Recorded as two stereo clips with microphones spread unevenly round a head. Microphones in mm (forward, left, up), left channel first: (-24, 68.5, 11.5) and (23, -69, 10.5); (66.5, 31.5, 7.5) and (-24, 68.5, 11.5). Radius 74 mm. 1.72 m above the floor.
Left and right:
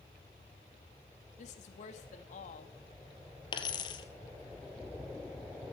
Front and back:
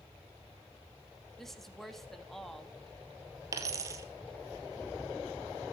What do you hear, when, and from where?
1.4 s a woman speaking: 65° left, 3 m
3.5 s a dropped coin: 140° left, 2.0 m